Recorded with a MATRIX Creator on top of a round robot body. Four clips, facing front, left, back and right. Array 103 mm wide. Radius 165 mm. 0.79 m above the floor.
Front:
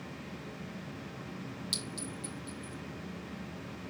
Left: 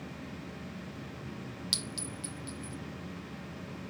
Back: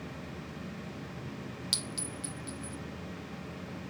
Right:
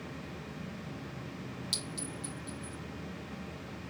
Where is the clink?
135° left, 0.7 m.